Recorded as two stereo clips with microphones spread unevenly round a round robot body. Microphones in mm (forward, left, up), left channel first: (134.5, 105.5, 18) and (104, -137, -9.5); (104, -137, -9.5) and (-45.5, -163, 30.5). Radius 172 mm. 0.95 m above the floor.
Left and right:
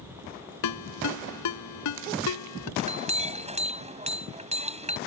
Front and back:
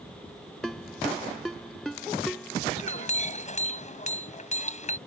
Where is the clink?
35° right.